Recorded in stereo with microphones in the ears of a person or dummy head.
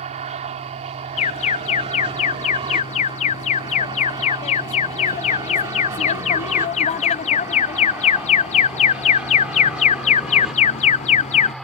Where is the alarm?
30° left (ahead or behind).